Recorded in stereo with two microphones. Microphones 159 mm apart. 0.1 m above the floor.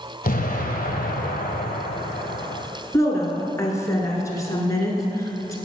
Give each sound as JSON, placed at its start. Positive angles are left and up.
{"t": 0.2, "sound": "an explosion", "side_deg": 65, "distance_m": 1.0}
{"t": 2.9, "sound": "a woman speaking", "side_deg": 20, "distance_m": 1.1}